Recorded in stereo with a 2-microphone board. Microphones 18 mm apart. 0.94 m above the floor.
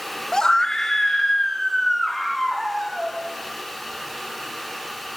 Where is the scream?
30° left (ahead or behind), 0.6 m; by 3.2 s centre (ahead or behind), 1.9 m.